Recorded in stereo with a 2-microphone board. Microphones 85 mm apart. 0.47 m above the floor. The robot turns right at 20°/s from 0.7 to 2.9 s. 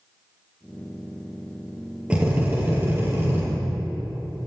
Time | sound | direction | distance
2.1 | a drill | 15° right (ahead or behind) | 6.5 m